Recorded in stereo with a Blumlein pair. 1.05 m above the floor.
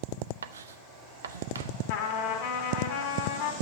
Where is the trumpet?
50° left, 2 m.